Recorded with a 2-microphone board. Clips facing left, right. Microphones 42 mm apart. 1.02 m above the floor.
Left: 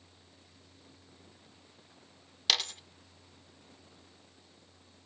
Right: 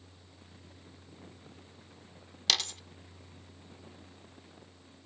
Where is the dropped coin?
5° left (ahead or behind), 0.5 m.